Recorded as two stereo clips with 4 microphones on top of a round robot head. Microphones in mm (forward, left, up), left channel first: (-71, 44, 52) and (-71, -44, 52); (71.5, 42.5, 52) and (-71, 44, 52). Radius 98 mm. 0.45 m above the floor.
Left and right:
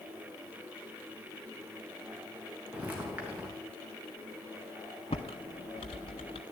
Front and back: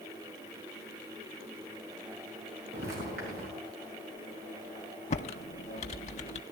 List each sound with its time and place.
2.7 s footsteps: 160° right, 3 m
5.1 s typing on a keyboard: 40° left, 0.6 m